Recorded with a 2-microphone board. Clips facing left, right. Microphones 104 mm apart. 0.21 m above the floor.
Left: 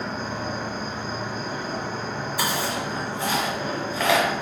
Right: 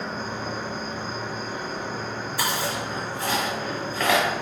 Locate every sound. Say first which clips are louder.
0.0 s an insect: left 1 dB; 85° left, 1.3 m
2.4 s chewing: left 1 dB; 15° left (ahead or behind), 1.3 m